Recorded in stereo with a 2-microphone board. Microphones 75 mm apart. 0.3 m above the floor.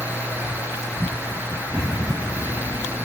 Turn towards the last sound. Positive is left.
turn(degrees=-5)  # may be behind; listen again after turning